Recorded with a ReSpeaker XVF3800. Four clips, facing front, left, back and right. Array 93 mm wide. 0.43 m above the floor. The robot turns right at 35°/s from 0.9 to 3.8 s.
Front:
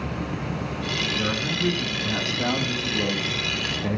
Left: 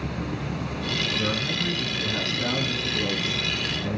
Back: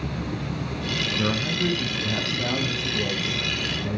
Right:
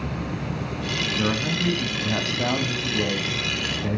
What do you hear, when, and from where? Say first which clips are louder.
1.2 s a man speaking: right 3 dB, back 2 dB; 115° right, 3 m; by 4.0 s 25° right, 3 m